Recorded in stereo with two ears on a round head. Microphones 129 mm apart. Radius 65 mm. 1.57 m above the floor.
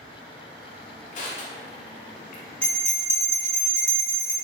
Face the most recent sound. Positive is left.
turn(degrees=10)  # may be behind; listen again after turning